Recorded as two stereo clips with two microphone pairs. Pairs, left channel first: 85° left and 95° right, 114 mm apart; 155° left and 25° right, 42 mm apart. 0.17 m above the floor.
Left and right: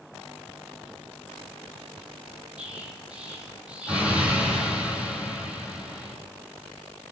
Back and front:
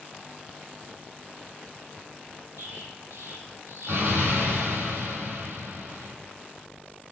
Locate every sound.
2.6 s an explosion: 15° right, 3 m